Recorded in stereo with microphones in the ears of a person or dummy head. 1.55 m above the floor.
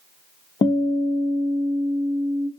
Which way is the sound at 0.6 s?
25° left (ahead or behind).